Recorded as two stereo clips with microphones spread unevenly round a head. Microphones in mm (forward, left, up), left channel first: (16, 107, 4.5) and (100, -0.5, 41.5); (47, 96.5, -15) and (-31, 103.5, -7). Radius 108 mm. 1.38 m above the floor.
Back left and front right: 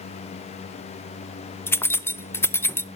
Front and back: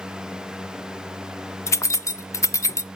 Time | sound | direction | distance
1.7 | keys jangling | 45° left | 0.6 m